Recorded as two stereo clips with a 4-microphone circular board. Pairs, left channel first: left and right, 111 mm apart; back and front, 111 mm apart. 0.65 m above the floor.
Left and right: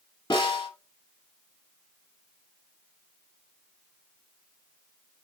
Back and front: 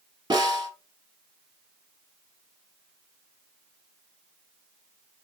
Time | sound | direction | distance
0.3 | a snare drum | 45° left | 1.1 m